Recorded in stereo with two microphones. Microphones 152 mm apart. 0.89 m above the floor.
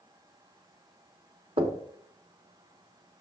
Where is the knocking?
35° right (ahead or behind), 0.8 m.